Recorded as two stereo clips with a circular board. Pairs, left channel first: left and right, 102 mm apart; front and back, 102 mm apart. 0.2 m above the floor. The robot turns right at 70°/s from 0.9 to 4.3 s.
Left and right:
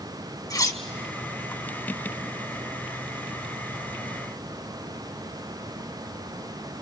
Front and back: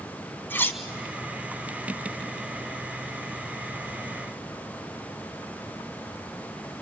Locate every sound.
0.5 s cutlery clinking: 60° left, 1.0 m